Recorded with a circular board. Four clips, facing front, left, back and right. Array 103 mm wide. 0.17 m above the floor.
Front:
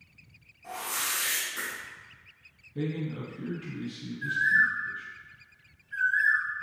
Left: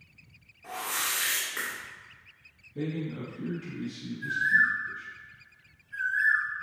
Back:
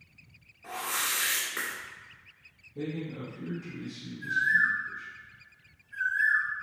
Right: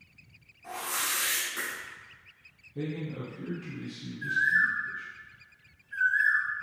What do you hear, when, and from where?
0.6 s a whoosh: 160° left, 1.4 m
2.8 s a man speaking: straight ahead, 1.4 m
4.2 s a bird: 35° right, 1.2 m